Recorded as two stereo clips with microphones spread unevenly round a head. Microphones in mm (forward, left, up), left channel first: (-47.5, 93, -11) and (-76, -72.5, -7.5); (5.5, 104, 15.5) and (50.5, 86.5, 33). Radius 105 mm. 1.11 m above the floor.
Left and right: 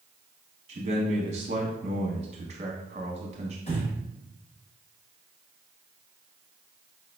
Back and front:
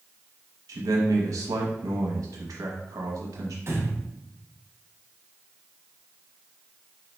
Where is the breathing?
15° left, 1.1 m.